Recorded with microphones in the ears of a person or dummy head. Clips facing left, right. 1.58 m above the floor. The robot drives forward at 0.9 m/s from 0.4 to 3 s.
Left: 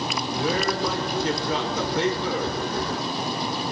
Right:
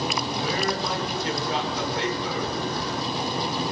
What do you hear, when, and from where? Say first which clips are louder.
0.3 s a man speaking: left 5 dB; 80° left, 7 m; by 2.6 s 85° left, 6.5 m